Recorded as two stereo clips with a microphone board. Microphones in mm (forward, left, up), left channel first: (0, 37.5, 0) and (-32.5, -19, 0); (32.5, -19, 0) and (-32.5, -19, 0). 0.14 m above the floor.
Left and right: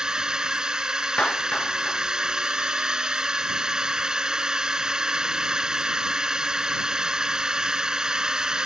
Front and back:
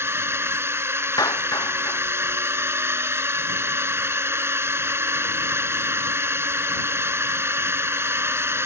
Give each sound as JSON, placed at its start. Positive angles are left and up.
{"t": 0.0, "sound": "a drone", "azimuth_deg": 170}
{"t": 1.2, "sound": "a clap", "azimuth_deg": -15}